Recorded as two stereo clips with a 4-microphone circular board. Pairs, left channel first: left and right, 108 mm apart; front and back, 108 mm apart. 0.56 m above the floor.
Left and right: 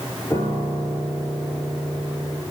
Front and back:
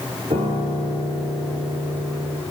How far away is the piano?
About 7.5 m.